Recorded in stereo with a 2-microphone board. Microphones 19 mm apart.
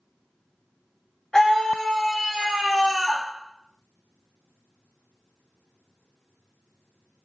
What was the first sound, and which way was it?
A scream, 20° left (ahead or behind).